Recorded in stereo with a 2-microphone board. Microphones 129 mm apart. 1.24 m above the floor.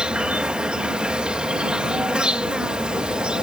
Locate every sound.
0.0 s an insect: 5° right (ahead or behind)